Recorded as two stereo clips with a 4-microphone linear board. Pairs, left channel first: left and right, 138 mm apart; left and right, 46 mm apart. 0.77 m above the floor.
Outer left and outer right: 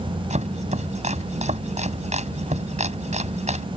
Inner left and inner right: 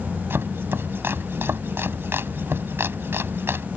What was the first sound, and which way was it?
Chopping, 55° right (ahead or behind).